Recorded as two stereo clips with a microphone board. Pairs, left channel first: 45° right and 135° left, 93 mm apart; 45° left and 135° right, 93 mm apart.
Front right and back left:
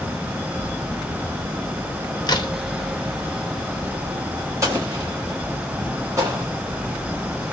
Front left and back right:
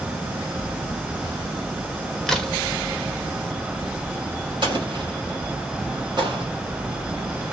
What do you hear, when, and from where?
2.3 s a crack: 40° right, 0.7 m
4.6 s an explosion: 170° right, 1.4 m